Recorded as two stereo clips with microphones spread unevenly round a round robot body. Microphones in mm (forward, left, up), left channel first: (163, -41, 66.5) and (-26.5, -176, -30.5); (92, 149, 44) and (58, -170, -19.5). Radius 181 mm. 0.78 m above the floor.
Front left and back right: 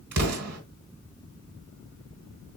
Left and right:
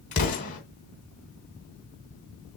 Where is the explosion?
155° left, 2.5 m.